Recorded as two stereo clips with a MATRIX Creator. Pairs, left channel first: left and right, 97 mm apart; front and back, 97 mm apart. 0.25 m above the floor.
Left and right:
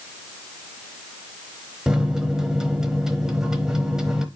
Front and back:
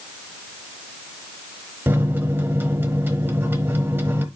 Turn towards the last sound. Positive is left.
turn(degrees=-165)